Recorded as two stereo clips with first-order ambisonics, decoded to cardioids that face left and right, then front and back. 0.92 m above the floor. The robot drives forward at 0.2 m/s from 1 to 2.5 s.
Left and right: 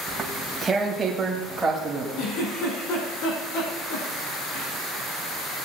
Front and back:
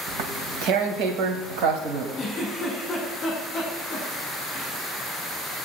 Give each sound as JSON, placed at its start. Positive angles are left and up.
{"t": 0.1, "sound": "tearing paper", "azimuth_deg": -170, "distance_m": 1.7}
{"t": 2.2, "sound": "a giggle", "azimuth_deg": 60, "distance_m": 5.0}